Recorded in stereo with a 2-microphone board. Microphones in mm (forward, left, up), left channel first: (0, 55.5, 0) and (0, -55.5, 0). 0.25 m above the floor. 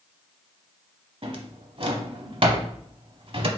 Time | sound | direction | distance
1.2 | a drawer | 55° right (ahead or behind) | 0.8 m